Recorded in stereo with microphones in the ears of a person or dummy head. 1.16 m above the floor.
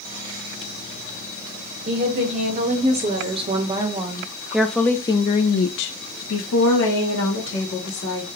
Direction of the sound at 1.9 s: 35° right (ahead or behind).